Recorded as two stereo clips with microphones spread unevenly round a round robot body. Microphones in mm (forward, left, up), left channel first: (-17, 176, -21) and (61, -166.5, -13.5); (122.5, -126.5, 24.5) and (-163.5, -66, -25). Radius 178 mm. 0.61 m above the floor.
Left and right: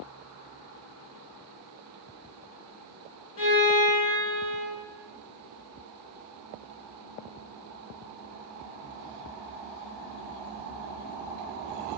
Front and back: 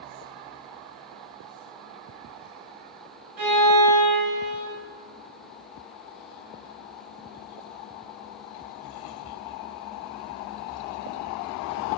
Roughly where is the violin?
Behind left.